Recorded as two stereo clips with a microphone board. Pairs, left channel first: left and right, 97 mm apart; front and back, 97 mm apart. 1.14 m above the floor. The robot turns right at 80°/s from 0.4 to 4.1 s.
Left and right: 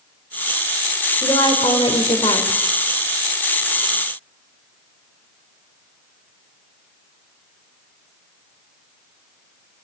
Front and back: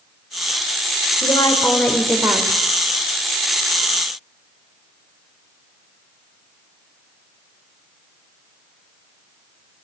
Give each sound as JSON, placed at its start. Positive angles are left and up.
{"t": 1.2, "sound": "a woman speaking", "azimuth_deg": 30, "distance_m": 3.5}